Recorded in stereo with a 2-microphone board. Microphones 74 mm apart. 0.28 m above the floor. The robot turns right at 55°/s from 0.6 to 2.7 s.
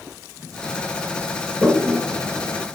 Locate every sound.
1.6 s a toilet flushing: 15° right (ahead or behind), 3 m; by 2.6 s 65° right (ahead or behind), 3 m